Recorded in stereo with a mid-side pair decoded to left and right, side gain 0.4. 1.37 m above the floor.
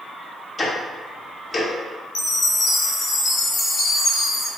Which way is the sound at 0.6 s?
35° left.